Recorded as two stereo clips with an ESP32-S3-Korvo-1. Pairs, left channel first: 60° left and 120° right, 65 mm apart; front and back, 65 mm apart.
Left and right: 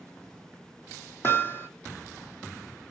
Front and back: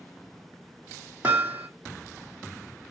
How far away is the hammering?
About 2.5 m.